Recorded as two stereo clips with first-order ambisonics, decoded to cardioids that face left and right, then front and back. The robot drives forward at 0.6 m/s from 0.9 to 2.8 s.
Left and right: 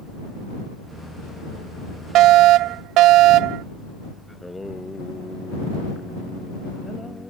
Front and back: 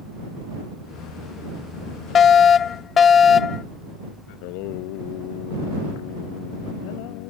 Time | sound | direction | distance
2.1 | a fire alarm | 55° right | ?
4.3 | singing | 5° left | ?